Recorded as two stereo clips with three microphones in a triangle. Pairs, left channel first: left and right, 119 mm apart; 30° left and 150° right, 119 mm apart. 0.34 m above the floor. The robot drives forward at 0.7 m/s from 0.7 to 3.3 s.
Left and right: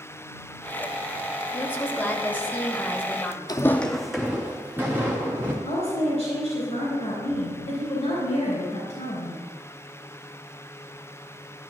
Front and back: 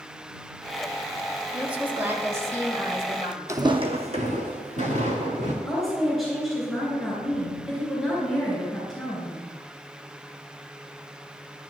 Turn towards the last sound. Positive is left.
turn(degrees=120)